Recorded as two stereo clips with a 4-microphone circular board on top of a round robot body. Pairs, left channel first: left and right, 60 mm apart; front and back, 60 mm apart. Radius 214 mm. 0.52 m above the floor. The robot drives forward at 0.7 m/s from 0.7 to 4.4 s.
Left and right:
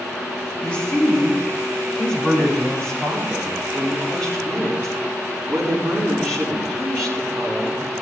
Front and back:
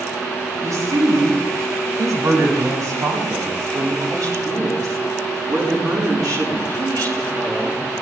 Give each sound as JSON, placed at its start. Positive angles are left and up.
{"t": 0.6, "sound": "a woman speaking", "azimuth_deg": 160, "distance_m": 5.5}